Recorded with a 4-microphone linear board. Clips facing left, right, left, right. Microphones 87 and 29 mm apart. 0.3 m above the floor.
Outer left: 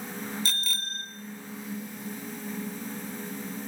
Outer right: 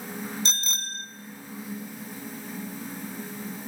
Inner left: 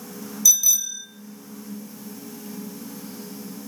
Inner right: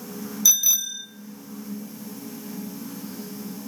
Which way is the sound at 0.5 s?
25° right (ahead or behind).